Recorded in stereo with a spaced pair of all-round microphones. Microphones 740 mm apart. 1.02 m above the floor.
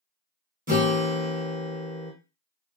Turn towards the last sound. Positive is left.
turn(degrees=-10)  # may be behind; listen again after turning